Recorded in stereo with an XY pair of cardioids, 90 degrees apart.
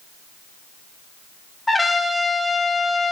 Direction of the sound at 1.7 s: 15° left.